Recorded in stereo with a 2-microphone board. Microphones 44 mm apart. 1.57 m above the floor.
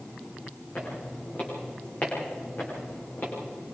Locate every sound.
0.8 s footsteps: 40° left (ahead or behind), 8.5 m; by 3.3 s 50° left (ahead or behind), 8 m